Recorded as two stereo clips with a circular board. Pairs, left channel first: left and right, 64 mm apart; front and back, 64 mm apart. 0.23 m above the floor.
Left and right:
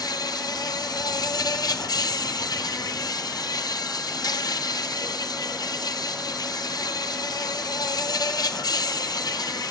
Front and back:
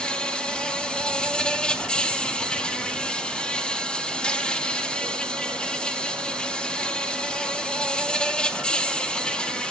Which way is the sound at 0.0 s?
75° left.